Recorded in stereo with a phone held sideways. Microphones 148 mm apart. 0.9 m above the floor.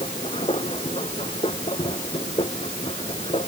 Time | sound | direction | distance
0.0 | a machine running | 40° left (ahead or behind) | ?